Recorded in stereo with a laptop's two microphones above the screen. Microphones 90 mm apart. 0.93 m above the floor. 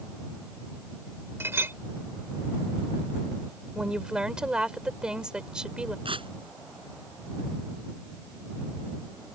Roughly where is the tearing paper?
Right.